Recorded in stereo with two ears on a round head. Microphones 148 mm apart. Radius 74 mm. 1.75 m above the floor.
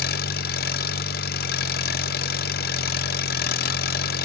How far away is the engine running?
About 0.9 m.